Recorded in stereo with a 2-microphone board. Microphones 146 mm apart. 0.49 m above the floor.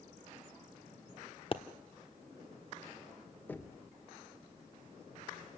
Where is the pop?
40° left (ahead or behind), 1.2 m.